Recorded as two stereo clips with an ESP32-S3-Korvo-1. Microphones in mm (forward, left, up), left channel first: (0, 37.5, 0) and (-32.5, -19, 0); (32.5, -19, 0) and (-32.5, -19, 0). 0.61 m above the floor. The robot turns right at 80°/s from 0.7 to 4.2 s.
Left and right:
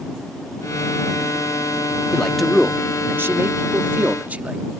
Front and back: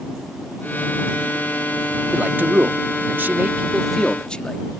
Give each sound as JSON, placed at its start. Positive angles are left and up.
{"t": 2.1, "sound": "a man speaking", "azimuth_deg": 125}